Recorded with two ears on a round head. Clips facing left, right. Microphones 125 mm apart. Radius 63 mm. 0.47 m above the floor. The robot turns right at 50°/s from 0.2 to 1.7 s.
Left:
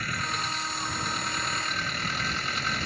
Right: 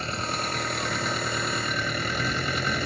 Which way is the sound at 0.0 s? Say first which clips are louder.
Right 3 dB; 155° right.